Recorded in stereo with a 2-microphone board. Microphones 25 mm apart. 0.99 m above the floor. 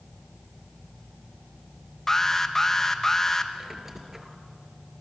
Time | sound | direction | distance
2.1 | an alarm | 20° left (ahead or behind) | 1.5 m
3.5 | a squeak | 15° right (ahead or behind) | 3 m